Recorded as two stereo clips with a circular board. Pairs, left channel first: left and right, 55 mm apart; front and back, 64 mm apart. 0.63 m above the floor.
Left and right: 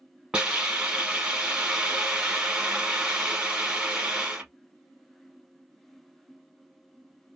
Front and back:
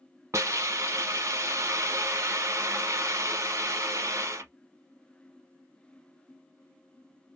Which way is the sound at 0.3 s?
160° right.